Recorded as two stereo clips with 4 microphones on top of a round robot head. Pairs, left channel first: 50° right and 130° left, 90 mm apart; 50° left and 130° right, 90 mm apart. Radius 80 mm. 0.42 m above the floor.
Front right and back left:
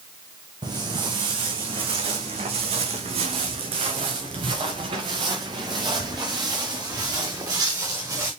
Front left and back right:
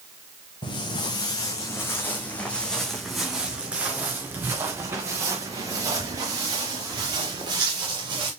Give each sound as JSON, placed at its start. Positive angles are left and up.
{"t": 0.6, "sound": "footsteps", "azimuth_deg": 90, "distance_m": 1.9}